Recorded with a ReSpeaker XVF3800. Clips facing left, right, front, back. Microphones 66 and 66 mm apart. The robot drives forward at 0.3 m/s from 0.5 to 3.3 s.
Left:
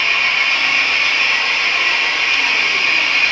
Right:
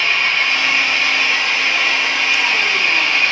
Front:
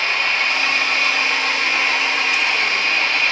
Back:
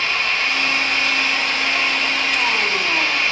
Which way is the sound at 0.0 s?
25° right.